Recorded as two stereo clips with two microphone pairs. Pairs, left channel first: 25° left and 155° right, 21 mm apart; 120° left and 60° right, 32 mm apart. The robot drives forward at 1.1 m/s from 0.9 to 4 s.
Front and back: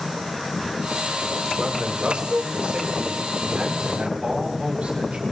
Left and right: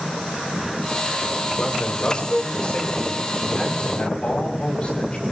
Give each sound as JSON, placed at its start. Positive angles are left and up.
{"t": 1.6, "sound": "a man speaking", "azimuth_deg": 170, "distance_m": 4.0}